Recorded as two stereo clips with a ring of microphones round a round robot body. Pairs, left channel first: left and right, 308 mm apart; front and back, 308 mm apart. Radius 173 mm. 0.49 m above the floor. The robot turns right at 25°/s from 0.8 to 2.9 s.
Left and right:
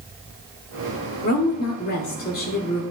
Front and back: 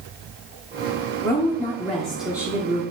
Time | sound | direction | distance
1.2 | a woman speaking | 70° left | 1.1 m